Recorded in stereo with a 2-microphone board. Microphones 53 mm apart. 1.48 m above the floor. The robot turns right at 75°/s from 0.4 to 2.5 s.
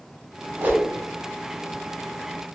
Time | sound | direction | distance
0.6 | a whoosh | 40° right (ahead or behind) | 0.8 m